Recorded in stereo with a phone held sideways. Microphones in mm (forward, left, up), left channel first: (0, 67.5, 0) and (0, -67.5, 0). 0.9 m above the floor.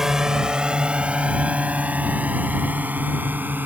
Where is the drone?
5° right (ahead or behind); by 3.6 s 15° right (ahead or behind).